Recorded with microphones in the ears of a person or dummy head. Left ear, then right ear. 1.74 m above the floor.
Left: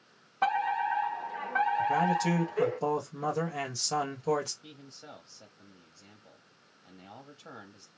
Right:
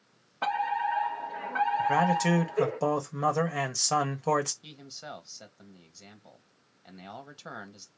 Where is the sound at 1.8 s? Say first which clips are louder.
Right 2 dB; 30° right (ahead or behind), 1.3 m.